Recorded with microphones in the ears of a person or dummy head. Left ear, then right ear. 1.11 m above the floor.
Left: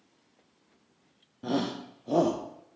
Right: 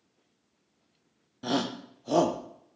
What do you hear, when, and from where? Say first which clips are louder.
1.4 s a shout: right 1 dB; 50° right (ahead or behind), 1.0 m